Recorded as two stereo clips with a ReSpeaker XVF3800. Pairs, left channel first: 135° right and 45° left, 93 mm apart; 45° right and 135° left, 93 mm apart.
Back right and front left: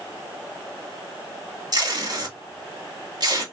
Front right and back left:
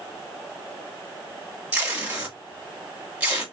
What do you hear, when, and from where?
1.7 s tape being pulled: 65° left, 1.3 m